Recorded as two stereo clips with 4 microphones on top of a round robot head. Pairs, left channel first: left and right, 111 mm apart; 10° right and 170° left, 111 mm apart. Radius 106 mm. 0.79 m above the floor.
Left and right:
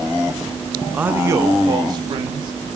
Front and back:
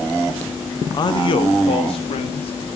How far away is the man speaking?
About 0.8 m.